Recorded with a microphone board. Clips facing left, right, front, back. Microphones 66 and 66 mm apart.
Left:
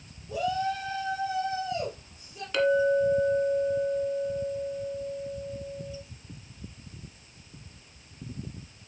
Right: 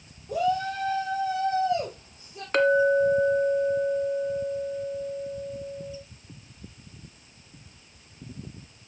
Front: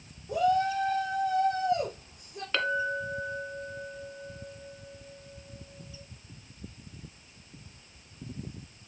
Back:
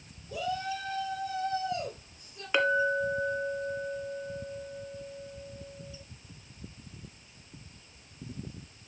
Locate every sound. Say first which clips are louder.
0.3 s a shout: right 3 dB, front 8 dB; 45° right, 4 m; by 2.4 s 25° right, 5 m
2.5 s a clink: right 3 dB, back 4 dB; 110° right, 1.5 m